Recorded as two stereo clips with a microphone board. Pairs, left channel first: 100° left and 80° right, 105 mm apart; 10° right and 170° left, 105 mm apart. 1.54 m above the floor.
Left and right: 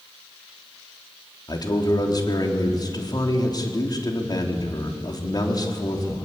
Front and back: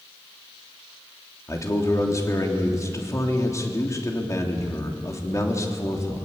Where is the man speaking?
50° left, 3.5 m.